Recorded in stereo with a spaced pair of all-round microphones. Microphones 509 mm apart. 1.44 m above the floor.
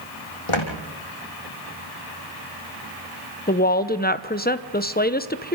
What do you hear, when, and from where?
0.5 s footsteps: 70° left (ahead or behind), 4.5 m
3.5 s a woman speaking: 20° left (ahead or behind), 0.9 m